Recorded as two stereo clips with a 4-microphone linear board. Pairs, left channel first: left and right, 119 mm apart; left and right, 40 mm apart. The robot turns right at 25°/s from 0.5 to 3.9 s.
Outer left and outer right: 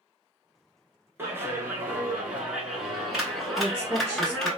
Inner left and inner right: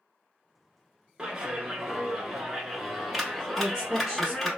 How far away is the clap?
About 1.0 m.